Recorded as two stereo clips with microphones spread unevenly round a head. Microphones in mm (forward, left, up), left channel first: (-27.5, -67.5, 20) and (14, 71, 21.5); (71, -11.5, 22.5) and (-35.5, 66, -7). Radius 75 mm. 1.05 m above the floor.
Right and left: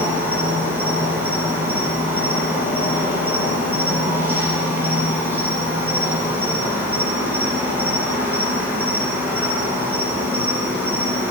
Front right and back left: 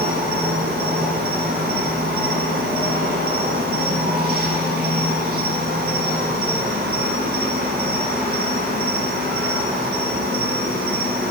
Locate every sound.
0.0 s an insect: 150° left, 7.5 m